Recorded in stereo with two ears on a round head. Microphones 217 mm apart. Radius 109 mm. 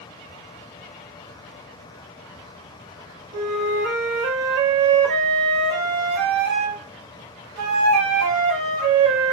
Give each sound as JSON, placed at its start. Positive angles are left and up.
{"t": 3.3, "sound": "a flute", "side_deg": -75, "distance_m": 0.6}